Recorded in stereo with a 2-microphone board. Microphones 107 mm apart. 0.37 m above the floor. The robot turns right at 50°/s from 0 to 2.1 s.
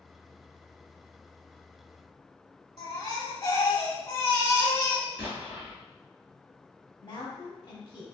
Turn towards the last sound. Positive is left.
turn(degrees=35)  # may be behind; listen again after turning